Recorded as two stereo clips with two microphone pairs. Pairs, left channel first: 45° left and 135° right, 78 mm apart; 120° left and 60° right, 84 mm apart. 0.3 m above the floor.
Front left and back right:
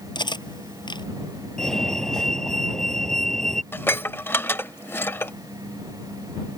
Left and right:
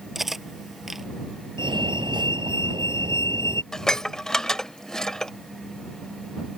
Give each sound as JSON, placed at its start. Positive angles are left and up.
{"t": 0.1, "sound": "cutlery clinking", "azimuth_deg": 30}
{"t": 1.6, "sound": "a fire alarm", "azimuth_deg": -40}
{"t": 3.7, "sound": "dishes clattering", "azimuth_deg": 40}